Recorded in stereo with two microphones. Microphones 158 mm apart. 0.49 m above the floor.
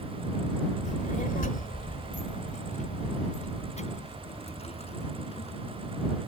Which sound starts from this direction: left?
A child speaking, at 0.8 s.